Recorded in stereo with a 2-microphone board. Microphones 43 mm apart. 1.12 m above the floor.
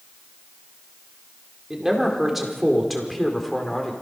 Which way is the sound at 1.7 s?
10° right (ahead or behind).